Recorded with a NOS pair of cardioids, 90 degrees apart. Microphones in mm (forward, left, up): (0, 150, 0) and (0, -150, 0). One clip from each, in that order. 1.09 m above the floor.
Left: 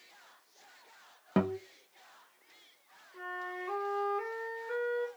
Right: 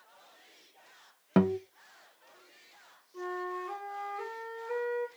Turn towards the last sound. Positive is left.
turn(degrees=5)